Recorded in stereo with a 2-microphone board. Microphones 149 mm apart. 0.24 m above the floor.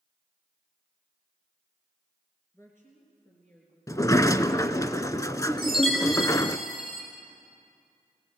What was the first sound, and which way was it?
A woman speaking, 20° left (ahead or behind).